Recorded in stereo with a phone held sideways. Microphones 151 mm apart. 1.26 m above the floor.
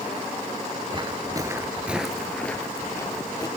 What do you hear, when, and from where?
0.9 s footsteps: 35° right (ahead or behind), 1.4 m; by 3.5 s 25° left (ahead or behind), 2 m